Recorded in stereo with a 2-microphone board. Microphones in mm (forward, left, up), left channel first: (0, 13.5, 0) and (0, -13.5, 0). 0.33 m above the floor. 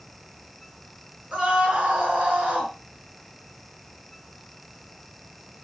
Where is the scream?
45° right (ahead or behind), 4.5 m; by 2.7 s 55° right (ahead or behind), 5 m.